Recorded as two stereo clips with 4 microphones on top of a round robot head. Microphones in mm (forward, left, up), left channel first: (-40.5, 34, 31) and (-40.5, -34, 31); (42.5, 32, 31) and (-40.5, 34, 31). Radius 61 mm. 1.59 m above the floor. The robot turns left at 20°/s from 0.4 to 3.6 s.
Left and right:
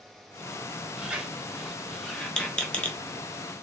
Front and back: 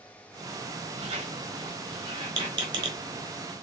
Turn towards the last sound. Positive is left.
turn(degrees=140)